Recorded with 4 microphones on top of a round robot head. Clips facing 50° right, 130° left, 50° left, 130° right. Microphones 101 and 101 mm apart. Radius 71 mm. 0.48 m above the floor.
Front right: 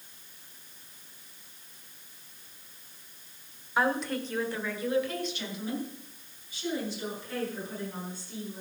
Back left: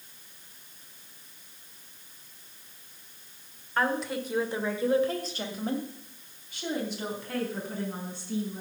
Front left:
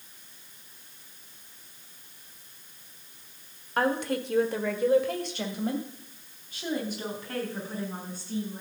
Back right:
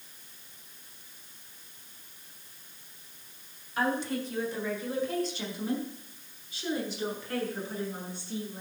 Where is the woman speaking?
30° left, 1.6 m; by 8.6 s 105° left, 5.5 m.